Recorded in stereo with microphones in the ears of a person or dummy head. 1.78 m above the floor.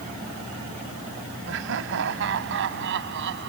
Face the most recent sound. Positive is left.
turn(degrees=-65)  # may be behind; listen again after turning